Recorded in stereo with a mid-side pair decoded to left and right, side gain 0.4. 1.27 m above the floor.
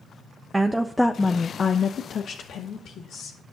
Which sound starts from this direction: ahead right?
A woman speaking, at 0.5 s.